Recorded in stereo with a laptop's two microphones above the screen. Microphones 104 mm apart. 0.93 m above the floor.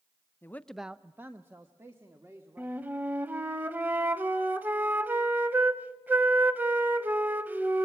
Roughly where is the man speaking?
Left.